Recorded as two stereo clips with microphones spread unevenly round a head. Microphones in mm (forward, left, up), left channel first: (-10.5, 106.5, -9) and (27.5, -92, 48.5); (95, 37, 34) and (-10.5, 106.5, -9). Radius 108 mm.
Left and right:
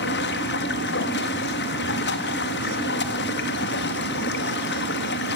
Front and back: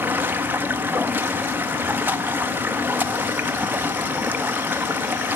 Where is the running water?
75° left, 1.4 m.